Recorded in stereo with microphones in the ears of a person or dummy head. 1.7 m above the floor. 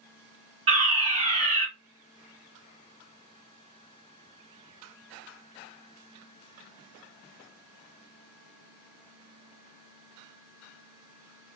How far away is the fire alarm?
About 1.4 m.